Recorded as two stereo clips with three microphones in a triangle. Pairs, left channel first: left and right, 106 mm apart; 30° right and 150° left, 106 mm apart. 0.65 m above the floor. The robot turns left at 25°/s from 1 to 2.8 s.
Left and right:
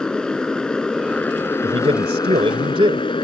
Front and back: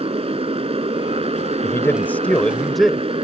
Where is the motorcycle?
170° left; by 3.2 s 125° left.